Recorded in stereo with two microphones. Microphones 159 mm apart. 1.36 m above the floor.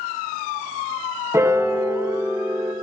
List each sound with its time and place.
1.3 s a piano: 20° right (ahead or behind), 0.7 m